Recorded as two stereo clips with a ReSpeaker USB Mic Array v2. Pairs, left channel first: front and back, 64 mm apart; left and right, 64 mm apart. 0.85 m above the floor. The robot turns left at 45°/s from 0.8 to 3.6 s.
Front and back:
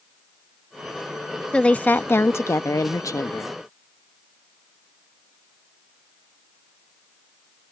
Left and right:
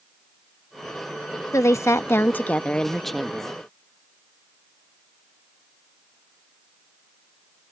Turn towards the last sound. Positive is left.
turn(degrees=-20)